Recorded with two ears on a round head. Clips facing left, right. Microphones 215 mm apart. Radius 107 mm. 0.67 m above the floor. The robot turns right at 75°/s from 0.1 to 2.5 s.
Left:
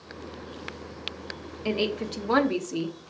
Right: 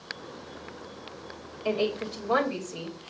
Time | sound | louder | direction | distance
1.6 | a woman speaking | even | 35° left | 1.2 m